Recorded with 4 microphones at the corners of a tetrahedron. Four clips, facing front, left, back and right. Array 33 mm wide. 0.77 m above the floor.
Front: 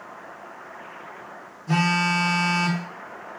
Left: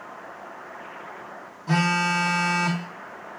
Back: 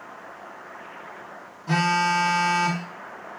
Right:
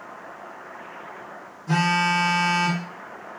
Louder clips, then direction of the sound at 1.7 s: Right 1 dB, even; 135° left.